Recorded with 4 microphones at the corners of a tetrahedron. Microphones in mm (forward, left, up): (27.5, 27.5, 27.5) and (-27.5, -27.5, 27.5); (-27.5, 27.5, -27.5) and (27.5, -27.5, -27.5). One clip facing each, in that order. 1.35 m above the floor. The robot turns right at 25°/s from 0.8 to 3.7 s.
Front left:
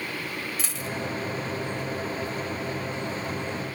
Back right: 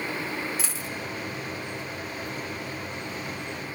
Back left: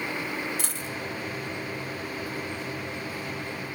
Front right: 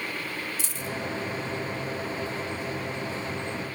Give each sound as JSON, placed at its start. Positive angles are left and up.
{"t": 0.6, "sound": "a dropped coin", "azimuth_deg": 140, "distance_m": 1.5}